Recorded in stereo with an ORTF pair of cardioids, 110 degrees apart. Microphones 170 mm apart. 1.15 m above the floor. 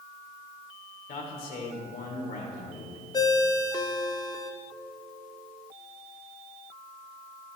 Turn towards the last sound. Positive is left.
turn(degrees=25)